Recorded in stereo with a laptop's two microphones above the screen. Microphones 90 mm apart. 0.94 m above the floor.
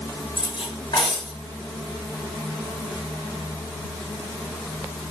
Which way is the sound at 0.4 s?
60° left (ahead or behind).